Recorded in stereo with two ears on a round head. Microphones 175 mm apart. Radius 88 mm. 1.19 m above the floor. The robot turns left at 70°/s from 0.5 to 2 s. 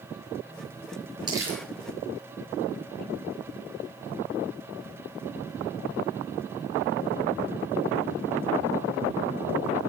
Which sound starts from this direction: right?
Crumpling, at 1.3 s.